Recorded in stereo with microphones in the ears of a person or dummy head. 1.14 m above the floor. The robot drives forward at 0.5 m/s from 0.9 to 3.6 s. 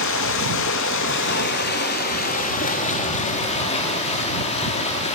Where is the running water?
65° left (ahead or behind), 1.3 m; by 5.2 s 35° left (ahead or behind), 2 m.